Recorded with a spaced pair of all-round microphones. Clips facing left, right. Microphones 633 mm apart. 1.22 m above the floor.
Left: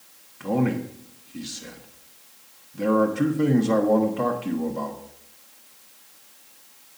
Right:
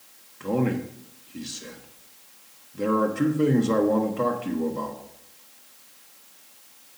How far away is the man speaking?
About 0.9 m.